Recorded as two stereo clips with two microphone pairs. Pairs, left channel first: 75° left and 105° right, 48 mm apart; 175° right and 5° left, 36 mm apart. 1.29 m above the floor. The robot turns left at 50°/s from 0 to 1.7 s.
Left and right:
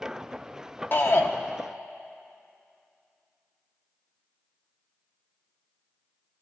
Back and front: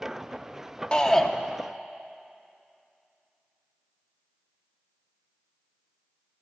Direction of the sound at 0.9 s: 120° left.